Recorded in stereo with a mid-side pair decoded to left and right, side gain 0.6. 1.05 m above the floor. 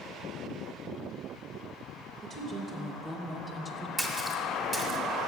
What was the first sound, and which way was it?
A woman speaking, 45° right.